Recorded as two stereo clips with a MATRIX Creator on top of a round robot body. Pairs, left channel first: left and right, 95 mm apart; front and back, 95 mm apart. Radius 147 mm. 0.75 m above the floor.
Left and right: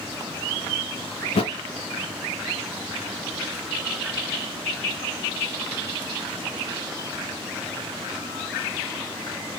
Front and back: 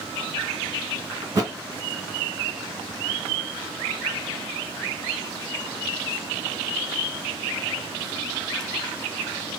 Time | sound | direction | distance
1.2 | a thud | 125° left | 2.5 m